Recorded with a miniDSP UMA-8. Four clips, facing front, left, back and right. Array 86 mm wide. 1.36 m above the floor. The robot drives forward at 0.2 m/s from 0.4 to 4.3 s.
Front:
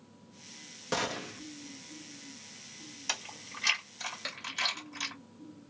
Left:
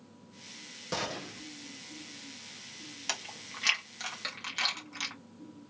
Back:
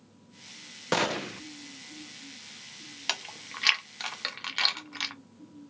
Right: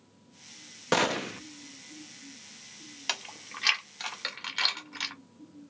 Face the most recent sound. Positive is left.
turn(degrees=-165)